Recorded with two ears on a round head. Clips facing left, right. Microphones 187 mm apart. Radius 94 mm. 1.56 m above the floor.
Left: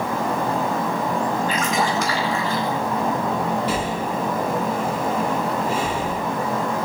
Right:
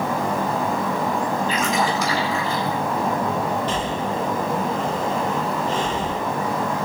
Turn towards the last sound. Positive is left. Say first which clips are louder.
# even
turn(degrees=10)  # may be behind; listen again after turning